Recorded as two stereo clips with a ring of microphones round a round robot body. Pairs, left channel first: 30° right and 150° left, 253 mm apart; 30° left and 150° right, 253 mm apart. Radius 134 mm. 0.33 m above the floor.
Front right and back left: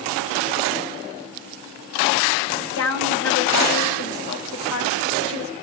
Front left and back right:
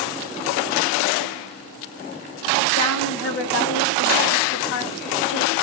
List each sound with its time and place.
2.8 s a woman speaking: 5° right, 3 m